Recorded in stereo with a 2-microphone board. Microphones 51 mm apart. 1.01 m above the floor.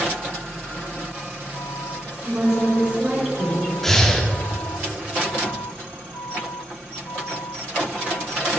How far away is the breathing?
About 1.0 m.